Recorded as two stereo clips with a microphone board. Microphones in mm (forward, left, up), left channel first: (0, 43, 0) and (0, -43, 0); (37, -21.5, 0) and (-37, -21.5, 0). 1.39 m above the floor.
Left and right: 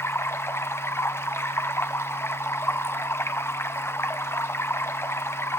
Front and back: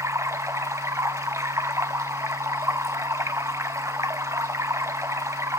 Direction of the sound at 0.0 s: 145° left.